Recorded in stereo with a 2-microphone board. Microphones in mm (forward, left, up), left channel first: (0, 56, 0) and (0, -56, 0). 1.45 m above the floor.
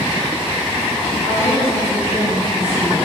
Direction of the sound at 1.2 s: 85° left.